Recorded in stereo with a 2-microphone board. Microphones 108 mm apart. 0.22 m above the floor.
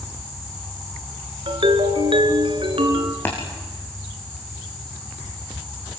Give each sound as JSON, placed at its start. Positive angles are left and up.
{"t": 1.5, "sound": "a ringtone", "side_deg": -55, "distance_m": 1.8}
{"t": 3.2, "sound": "tapping", "side_deg": 20, "distance_m": 5.0}